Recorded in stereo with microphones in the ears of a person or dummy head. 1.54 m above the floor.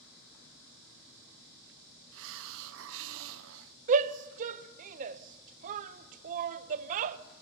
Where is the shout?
40° right (ahead or behind), 0.8 m.